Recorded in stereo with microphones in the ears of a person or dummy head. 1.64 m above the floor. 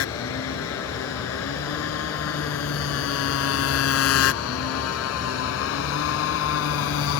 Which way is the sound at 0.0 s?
80° left.